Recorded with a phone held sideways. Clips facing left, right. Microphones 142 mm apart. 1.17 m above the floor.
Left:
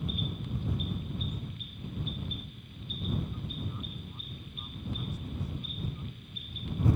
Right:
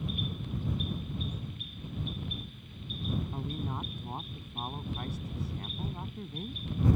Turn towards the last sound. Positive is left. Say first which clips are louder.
# right 4 dB
turn(degrees=-75)  # may be behind; listen again after turning